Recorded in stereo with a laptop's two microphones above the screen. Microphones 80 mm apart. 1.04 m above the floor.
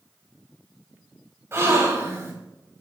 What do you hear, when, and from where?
1.5 s a gasp: 35° right (ahead or behind), 1.8 m